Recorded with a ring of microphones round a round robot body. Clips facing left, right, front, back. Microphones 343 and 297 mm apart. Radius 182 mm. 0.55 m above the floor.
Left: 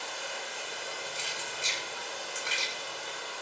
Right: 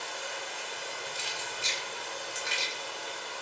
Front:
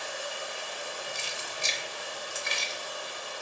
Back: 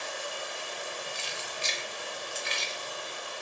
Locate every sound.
0.0 s running water: 80° left, 1.7 m
1.1 s keys jangling: 10° left, 0.8 m